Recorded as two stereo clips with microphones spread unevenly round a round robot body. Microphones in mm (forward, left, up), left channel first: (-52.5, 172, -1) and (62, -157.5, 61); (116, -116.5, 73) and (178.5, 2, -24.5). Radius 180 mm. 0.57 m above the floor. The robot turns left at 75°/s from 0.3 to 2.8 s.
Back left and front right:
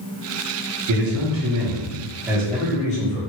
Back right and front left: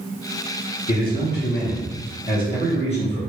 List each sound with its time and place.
0.9 s a man speaking: 65° right, 1.3 m; by 3.2 s 155° left, 1.3 m